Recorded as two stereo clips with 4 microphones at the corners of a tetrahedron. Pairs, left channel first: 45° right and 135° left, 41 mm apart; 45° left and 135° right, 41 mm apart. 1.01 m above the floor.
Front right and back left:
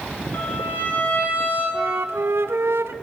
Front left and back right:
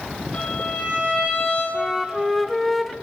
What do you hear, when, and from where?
0.3 s a violin: 10° right, 7.5 m
1.7 s a flute: 135° left, 0.8 m